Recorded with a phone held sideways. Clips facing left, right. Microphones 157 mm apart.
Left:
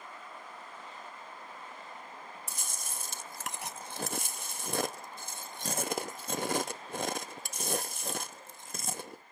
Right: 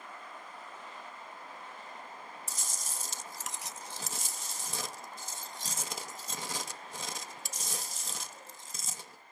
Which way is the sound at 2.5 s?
60° left (ahead or behind).